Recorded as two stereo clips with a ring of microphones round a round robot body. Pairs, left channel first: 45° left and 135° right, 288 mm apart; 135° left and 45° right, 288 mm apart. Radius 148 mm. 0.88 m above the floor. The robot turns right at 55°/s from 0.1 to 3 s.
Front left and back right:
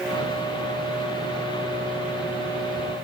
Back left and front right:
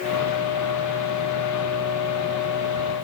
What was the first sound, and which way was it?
Only background noise.